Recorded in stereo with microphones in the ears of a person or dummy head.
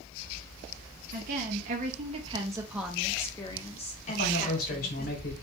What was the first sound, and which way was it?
A woman speaking, 55° right (ahead or behind).